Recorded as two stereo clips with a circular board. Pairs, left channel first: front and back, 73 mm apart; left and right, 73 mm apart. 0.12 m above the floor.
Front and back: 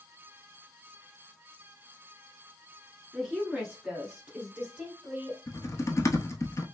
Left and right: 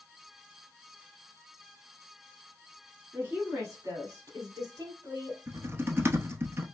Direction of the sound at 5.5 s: 40° right.